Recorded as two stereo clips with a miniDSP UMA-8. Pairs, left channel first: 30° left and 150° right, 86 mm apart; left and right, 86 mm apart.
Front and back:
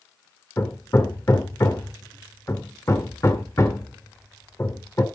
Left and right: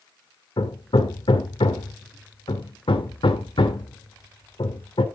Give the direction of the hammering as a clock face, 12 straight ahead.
9 o'clock.